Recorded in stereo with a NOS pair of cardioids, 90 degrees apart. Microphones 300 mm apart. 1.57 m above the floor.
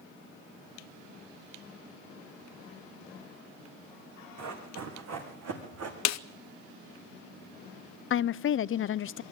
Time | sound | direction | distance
4.4 | running footsteps | 65° right | 6 m
6.0 | a snare drum | 65° left | 0.7 m
8.1 | a woman speaking | 45° left | 0.5 m